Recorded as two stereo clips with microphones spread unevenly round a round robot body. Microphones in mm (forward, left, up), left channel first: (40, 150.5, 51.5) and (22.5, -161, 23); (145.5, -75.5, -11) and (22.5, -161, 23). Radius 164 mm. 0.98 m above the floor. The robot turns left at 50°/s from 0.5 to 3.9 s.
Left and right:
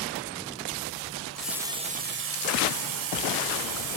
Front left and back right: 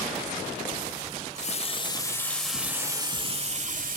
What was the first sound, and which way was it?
A running tap, 10° left.